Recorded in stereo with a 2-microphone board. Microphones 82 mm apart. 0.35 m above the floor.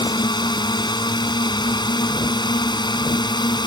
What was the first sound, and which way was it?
A drone, 65° left (ahead or behind).